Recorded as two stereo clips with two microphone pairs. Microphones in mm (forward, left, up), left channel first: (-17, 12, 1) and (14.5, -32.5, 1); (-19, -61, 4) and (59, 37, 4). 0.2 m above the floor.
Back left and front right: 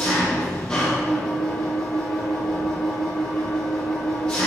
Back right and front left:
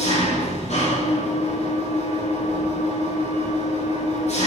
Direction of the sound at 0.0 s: 160° right.